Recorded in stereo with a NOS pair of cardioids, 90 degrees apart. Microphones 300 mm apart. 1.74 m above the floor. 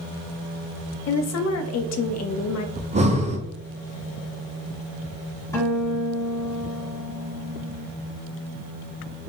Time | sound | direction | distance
1.1 | a woman speaking | 55° left | 0.5 m
2.8 | breathing | 20° right | 0.5 m
5.5 | a guitar | 10° left | 1.4 m